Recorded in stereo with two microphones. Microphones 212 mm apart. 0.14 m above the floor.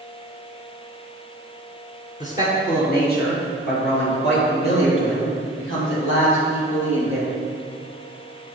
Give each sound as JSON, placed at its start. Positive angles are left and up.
{"t": 2.2, "sound": "a man speaking", "side_deg": 35, "distance_m": 2.5}